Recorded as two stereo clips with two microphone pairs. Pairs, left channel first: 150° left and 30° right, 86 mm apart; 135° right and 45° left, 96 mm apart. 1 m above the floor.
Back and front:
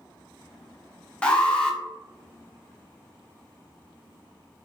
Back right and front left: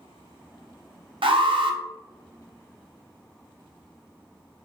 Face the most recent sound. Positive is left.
turn(degrees=70)